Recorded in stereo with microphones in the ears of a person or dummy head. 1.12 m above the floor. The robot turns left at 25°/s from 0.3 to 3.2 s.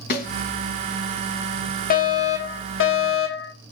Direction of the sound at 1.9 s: 135° left.